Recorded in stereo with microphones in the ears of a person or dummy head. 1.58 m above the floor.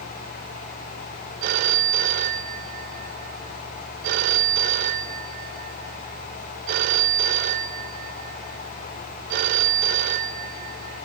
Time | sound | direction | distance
1.4 | a phone ringing | 50° right (ahead or behind) | 0.9 m